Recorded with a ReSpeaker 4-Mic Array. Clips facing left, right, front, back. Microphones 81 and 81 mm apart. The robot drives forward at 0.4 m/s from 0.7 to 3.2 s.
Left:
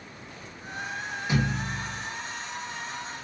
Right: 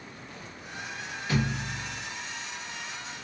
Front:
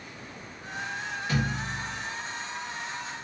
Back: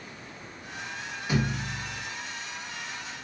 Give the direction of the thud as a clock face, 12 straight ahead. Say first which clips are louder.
Left 1 dB, back 2 dB; 8 o'clock.